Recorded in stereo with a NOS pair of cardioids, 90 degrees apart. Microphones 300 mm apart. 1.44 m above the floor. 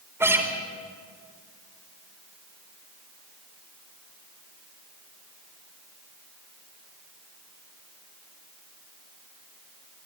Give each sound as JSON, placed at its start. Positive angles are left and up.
{"t": 0.2, "sound": "a guitar", "azimuth_deg": -10, "distance_m": 4.0}